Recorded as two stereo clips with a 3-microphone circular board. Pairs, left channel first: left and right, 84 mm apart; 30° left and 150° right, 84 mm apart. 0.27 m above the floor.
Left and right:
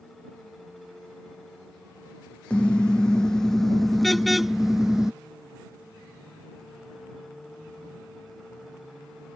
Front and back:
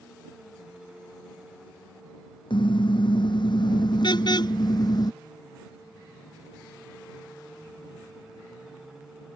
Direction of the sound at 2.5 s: 10° left.